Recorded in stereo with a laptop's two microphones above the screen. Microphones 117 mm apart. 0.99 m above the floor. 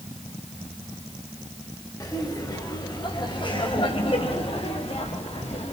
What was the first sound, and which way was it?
Laughter, 30° left (ahead or behind).